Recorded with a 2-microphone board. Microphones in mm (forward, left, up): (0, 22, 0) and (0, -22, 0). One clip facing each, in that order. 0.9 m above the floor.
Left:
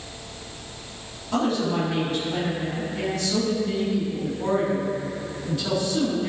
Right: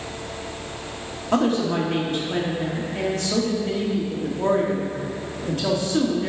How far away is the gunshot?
I don't hear a gunshot.